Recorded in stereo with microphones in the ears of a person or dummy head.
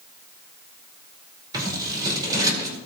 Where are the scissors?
25° right (ahead or behind), 4.5 m.